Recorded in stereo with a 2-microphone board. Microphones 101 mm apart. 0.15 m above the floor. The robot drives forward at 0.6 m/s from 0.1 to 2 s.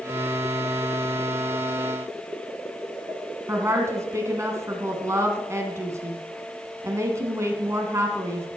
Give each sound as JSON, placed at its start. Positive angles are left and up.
{"t": 3.5, "sound": "a woman speaking", "side_deg": -30, "distance_m": 1.5}